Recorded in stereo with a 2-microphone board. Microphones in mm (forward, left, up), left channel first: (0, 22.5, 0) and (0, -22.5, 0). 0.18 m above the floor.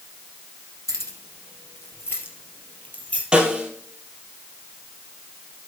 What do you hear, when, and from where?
0.9 s keys jangling: 75° left (ahead or behind), 3 m; by 3.2 s 30° left (ahead or behind), 3 m
3.3 s a snare drum: 20° right (ahead or behind), 2 m